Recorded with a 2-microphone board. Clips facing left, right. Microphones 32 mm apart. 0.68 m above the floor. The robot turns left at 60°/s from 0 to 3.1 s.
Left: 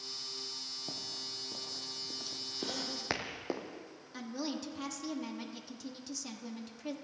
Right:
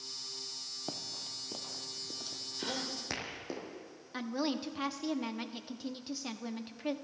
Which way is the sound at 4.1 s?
30° right (ahead or behind).